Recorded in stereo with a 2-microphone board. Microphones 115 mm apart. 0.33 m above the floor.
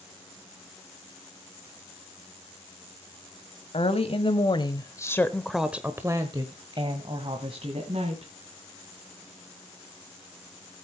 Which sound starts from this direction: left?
A woman speaking, at 3.7 s.